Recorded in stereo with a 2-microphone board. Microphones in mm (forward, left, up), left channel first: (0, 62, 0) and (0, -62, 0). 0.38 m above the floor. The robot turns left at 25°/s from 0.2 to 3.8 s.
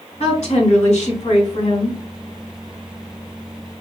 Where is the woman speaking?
120° left, 3 m; by 2.0 s 75° left, 3 m.